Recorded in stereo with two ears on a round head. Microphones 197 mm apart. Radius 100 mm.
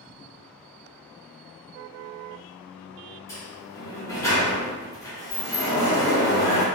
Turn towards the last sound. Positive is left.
turn(degrees=15)  # may be behind; listen again after turning